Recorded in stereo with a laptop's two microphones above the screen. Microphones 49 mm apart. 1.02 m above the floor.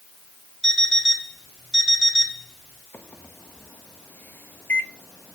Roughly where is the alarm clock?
Centre.